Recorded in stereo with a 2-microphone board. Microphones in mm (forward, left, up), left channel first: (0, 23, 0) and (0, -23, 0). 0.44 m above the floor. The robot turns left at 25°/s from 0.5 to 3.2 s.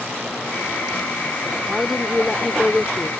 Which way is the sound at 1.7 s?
5° right (ahead or behind).